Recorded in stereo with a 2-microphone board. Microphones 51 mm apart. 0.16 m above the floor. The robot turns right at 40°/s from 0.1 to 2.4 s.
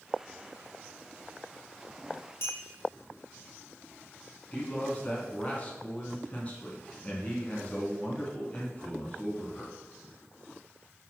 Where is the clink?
55° left (ahead or behind), 2.5 m.